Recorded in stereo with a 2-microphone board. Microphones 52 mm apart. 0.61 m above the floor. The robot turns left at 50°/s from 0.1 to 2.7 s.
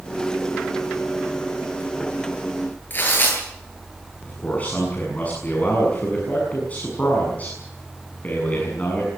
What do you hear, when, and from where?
2.9 s tearing paper: 40° left (ahead or behind), 10 m
4.2 s a man speaking: 30° left (ahead or behind), 7 m